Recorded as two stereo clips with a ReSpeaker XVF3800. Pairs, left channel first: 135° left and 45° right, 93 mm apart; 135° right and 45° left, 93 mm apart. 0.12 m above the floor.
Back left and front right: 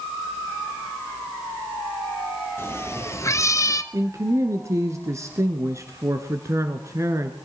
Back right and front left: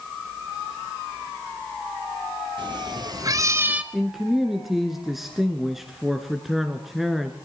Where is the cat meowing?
70° left, 1.7 m; by 3.8 s 115° left, 0.8 m.